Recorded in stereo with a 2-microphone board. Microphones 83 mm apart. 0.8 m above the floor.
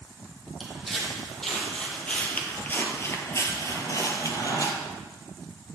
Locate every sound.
0.6 s footsteps: centre (ahead or behind), 1.7 m; by 4.7 s 40° left (ahead or behind), 1.2 m